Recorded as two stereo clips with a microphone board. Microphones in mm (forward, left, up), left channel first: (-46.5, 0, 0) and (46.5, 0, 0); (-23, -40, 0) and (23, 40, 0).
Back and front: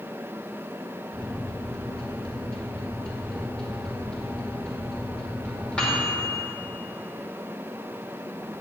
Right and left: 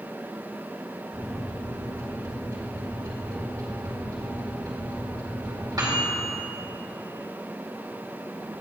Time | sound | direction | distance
1.1 | a microwave | 100° left | 2 m